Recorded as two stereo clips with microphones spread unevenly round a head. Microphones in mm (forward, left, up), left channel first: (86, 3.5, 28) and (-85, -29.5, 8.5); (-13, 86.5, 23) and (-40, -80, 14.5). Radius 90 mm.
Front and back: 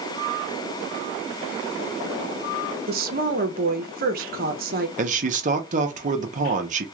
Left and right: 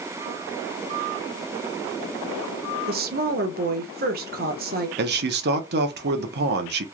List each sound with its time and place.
2.9 s a woman speaking: 130° right, 0.9 m
5.0 s a man speaking: 120° right, 0.8 m